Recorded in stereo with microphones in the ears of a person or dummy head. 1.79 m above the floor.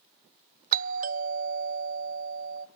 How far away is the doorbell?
About 0.9 m.